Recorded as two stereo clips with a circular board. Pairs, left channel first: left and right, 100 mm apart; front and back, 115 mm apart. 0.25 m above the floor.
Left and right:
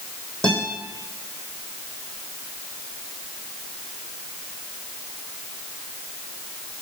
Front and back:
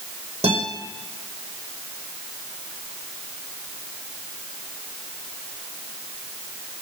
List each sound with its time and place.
0.4 s a guitar: 170° left, 3 m